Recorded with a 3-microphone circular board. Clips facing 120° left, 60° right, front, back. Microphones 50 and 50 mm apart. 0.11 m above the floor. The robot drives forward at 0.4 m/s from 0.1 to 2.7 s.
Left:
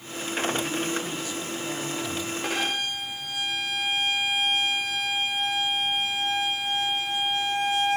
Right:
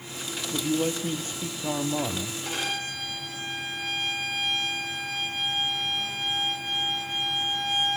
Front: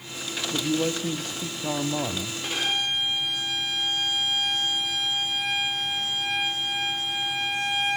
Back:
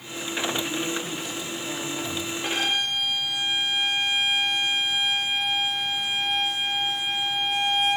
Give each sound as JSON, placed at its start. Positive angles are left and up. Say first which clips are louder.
{"t": 0.5, "sound": "a man speaking", "louder": "right 1 dB, front 2 dB", "azimuth_deg": -10, "distance_m": 3.0}
{"t": 2.4, "sound": "a violin", "louder": "left 4 dB, back 1 dB", "azimuth_deg": 115, "distance_m": 6.5}